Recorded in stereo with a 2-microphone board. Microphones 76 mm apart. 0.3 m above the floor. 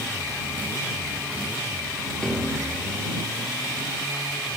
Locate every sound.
2.2 s a piano: 10° left (ahead or behind)